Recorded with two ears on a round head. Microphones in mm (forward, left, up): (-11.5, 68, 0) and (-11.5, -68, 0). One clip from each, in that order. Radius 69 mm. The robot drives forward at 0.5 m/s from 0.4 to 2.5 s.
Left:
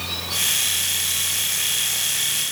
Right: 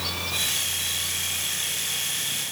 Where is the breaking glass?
No breaking glass in this recording.